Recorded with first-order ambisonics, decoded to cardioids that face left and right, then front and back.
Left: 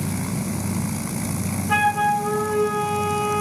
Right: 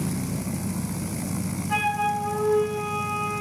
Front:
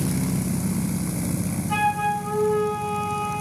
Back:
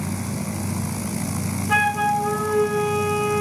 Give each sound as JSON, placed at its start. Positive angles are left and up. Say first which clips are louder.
{"t": 1.7, "sound": "a flute", "louder": "left 5 dB, back 3 dB", "azimuth_deg": 150, "distance_m": 0.6}